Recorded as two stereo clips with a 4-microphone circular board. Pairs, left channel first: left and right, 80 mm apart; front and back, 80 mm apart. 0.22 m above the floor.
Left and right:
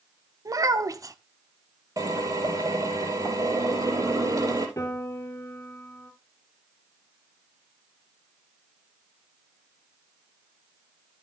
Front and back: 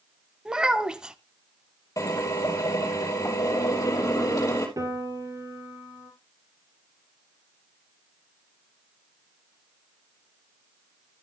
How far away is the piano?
About 3 m.